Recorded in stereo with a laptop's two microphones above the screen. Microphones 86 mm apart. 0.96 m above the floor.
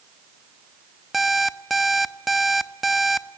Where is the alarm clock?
Centre (ahead or behind), 0.6 m.